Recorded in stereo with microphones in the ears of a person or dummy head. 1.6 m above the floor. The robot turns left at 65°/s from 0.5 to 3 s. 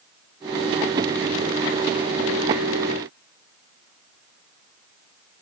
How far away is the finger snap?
No finger snap in this recording.